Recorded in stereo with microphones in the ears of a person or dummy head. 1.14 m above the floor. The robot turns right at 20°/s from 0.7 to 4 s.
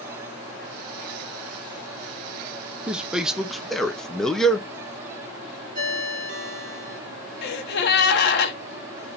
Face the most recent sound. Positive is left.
turn(degrees=60)  # may be behind; listen again after turning